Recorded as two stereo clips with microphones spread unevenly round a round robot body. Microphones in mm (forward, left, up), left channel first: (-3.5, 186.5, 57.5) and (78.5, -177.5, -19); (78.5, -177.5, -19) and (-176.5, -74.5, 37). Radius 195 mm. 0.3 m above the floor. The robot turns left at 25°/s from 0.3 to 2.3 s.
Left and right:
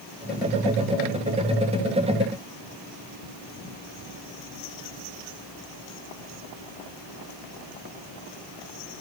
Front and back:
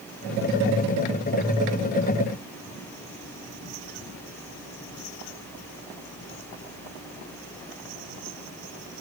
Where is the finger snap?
No finger snap in this recording.